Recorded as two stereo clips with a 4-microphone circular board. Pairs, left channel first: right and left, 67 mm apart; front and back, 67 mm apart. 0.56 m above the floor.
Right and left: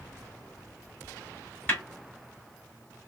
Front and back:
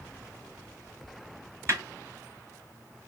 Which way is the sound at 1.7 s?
150° right.